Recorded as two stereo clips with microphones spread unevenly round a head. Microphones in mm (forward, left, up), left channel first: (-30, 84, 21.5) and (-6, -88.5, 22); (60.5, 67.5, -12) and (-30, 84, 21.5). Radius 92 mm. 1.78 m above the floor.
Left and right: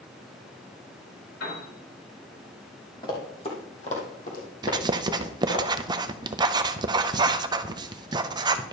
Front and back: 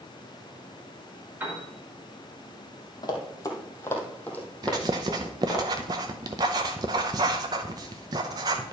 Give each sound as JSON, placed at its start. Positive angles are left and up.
{"t": 1.4, "sound": "a piano", "azimuth_deg": 110, "distance_m": 4.5}
{"t": 3.0, "sound": "running footsteps", "azimuth_deg": 35, "distance_m": 2.5}
{"t": 4.6, "sound": "writing", "azimuth_deg": -145, "distance_m": 0.5}